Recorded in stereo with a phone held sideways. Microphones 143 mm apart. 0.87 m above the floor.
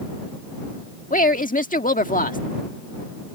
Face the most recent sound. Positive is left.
turn(degrees=70)  # may be behind; listen again after turning